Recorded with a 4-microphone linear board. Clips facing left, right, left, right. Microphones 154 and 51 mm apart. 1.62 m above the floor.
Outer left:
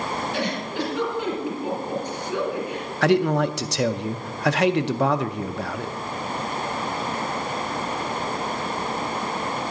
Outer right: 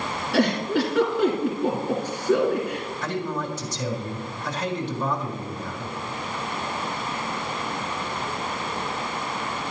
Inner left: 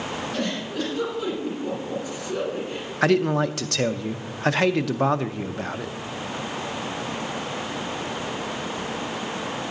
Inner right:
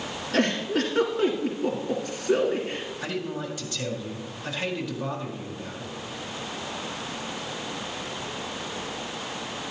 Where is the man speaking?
75° left (ahead or behind), 0.5 m.